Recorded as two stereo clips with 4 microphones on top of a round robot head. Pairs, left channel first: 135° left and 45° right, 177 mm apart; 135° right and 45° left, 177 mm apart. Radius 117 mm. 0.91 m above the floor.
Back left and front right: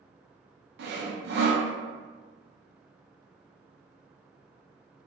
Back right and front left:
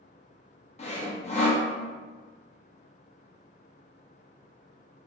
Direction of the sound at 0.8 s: 75° right.